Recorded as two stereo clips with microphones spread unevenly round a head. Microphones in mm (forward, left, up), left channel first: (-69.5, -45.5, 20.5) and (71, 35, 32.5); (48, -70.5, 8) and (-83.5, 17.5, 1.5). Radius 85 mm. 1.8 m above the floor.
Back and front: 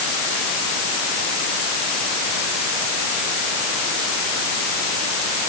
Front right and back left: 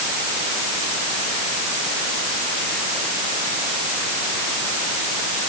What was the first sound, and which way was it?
Only background noise.